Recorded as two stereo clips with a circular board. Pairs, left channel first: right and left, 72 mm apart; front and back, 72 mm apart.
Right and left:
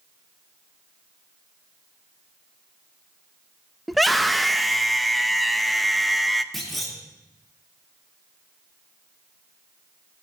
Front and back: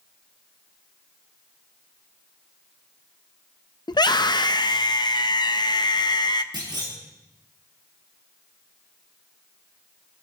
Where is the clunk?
175° right, 2 m.